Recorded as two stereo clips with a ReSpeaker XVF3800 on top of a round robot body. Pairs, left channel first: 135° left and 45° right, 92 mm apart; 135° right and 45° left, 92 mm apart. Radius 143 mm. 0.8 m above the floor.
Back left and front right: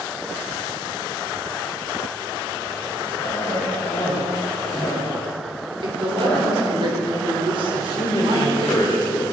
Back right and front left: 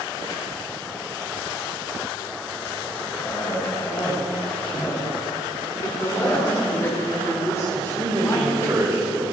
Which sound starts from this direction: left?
A man speaking, at 7.7 s.